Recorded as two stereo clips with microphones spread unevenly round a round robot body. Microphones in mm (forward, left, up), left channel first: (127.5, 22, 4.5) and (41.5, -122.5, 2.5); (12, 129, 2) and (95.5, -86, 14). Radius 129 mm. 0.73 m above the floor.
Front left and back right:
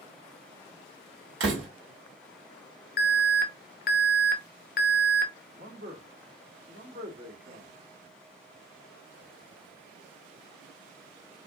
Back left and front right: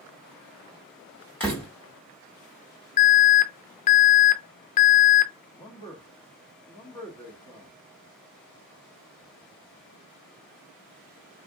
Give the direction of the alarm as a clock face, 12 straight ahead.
10 o'clock.